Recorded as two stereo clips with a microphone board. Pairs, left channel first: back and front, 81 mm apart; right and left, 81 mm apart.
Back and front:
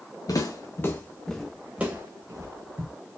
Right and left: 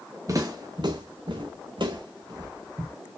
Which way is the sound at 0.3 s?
135° left.